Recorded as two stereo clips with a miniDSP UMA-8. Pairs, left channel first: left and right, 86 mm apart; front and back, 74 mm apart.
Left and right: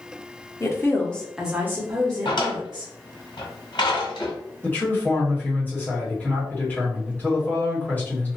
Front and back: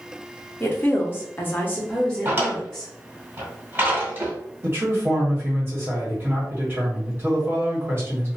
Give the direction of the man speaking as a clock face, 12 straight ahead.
7 o'clock.